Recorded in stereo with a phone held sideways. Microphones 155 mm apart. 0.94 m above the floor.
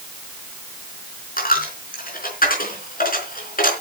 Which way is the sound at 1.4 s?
70° left (ahead or behind).